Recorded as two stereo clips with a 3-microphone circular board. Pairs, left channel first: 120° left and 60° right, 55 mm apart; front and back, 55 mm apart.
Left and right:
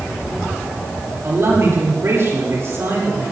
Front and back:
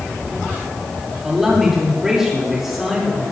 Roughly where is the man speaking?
Right.